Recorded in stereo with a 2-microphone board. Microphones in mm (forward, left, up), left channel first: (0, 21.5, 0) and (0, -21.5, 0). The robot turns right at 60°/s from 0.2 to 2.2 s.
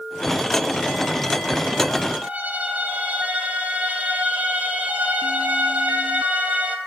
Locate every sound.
2.2 s a violin: 40° right (ahead or behind), 1.0 m